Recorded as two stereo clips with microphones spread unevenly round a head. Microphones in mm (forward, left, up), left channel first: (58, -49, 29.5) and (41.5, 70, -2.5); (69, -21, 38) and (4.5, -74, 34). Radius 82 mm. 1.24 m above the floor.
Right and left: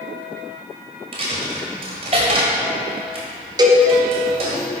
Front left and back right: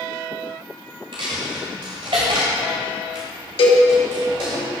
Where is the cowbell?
40° left, 2 m.